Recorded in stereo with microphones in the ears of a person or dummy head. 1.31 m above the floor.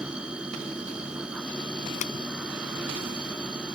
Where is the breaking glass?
45° left (ahead or behind).